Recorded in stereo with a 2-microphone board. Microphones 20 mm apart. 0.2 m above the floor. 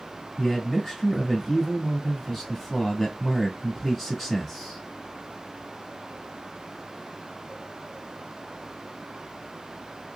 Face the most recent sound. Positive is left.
turn(degrees=10)  # may be behind; listen again after turning